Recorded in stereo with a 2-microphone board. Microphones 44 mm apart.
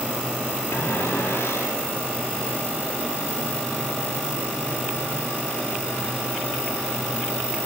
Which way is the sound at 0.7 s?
70° left (ahead or behind).